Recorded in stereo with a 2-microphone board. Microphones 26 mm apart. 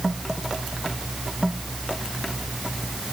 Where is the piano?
I don't hear a piano.